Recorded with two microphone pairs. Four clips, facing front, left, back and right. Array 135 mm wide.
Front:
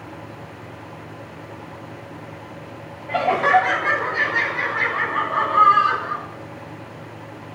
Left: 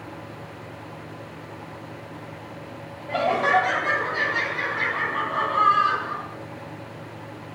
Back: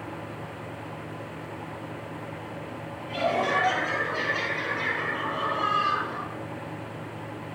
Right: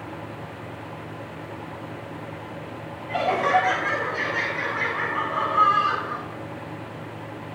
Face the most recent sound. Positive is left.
turn(degrees=25)